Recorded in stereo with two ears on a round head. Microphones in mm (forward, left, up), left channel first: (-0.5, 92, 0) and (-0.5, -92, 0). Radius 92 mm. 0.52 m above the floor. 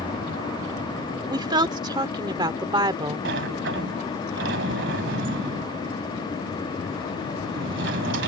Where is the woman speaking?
20° right (ahead or behind).